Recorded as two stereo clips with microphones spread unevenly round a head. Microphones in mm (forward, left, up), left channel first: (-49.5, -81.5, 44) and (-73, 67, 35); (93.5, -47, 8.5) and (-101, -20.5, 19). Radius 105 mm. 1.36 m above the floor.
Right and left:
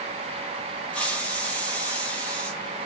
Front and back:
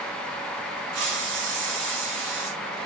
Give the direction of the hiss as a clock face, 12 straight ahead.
5 o'clock.